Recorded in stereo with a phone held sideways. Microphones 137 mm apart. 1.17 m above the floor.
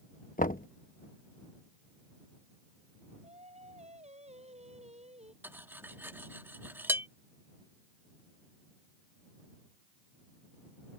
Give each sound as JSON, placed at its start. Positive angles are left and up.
{"t": 0.4, "sound": "knocking", "side_deg": 85}
{"t": 3.2, "sound": "singing", "side_deg": -50}
{"t": 5.4, "sound": "cutlery clinking", "side_deg": -15}